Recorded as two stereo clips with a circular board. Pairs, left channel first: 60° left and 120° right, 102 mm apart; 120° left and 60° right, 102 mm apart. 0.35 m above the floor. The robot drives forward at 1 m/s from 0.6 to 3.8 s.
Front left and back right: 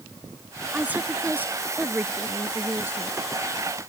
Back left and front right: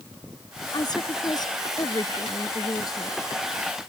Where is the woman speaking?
165° left; by 3.2 s 170° left.